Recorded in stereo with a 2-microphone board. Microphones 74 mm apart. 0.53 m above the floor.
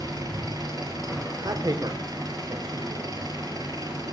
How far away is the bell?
I don't hear a bell.